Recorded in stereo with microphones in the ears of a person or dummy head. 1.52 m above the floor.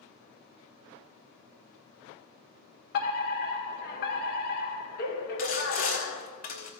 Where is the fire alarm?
50° left (ahead or behind), 1.6 m.